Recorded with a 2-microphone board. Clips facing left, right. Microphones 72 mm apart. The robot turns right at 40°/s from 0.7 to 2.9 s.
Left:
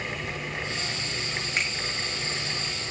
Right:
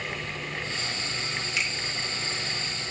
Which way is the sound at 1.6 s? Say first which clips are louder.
Left 1 dB; 40° left (ahead or behind).